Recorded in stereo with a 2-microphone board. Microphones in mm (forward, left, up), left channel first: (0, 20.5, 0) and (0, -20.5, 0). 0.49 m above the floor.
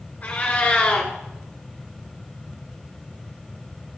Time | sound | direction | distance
0.2 | a cat meowing | 35° left (ahead or behind) | 1.6 m